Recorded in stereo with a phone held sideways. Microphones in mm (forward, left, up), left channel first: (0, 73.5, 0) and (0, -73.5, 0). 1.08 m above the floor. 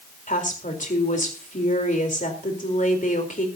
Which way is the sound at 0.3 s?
65° left (ahead or behind).